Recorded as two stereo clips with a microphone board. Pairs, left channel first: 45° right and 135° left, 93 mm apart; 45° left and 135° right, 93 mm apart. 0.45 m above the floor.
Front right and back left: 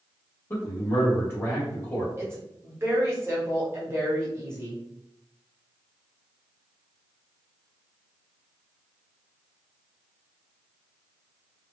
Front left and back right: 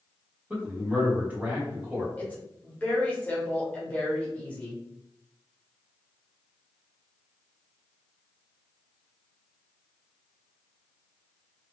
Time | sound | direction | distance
0.5 | a man speaking | 80° right | 1.3 m
2.2 | a woman speaking | 100° left | 1.0 m